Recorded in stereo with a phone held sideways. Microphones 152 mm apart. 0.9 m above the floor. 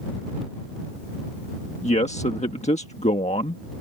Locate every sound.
1.8 s a man speaking: 50° left (ahead or behind)